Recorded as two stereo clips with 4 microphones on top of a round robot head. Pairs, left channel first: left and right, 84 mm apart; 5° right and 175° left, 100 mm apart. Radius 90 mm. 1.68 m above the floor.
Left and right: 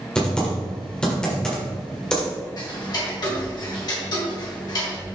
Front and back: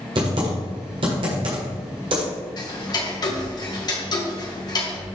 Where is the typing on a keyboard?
165° left, 1.7 m.